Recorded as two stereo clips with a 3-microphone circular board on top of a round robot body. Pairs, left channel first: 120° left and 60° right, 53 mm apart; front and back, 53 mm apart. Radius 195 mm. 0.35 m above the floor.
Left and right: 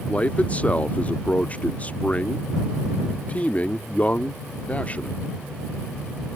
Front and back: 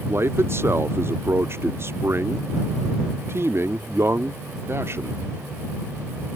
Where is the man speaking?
175° left.